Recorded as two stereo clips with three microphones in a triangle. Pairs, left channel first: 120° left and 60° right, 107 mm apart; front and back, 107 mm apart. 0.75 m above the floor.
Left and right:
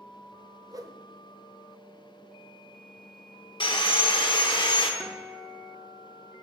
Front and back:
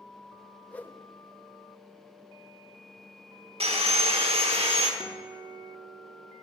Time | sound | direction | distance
0.7 | a whoosh | 65° right | 0.6 m
3.6 | sawing | 160° left | 1.0 m
5.0 | a guitar | 150° right | 1.2 m